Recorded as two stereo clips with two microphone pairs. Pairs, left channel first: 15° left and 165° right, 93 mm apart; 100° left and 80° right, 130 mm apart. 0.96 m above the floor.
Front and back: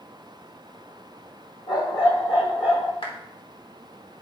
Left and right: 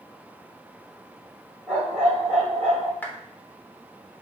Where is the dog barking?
5° left, 6.5 m; by 2.9 s 10° left, 7 m.